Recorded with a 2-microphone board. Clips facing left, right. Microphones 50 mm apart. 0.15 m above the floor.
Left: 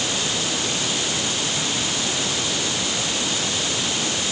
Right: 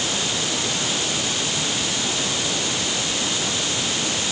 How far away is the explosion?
No explosion in this recording.